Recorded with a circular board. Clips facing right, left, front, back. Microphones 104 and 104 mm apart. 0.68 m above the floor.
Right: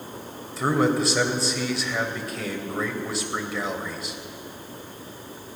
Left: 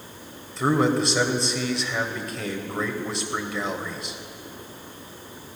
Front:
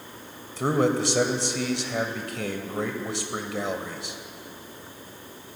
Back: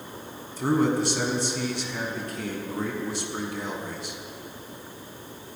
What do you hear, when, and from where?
0.6 s a man speaking: straight ahead, 2.5 m